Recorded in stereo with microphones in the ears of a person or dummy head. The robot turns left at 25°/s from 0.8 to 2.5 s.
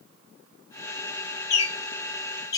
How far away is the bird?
About 1.0 m.